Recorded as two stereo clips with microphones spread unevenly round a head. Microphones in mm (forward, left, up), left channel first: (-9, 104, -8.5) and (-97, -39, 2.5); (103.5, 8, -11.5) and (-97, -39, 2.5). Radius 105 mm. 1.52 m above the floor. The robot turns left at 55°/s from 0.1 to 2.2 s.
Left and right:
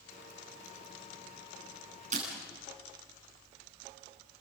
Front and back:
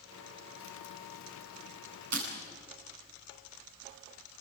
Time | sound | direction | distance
2.1 | breaking glass | 165° right | 9 m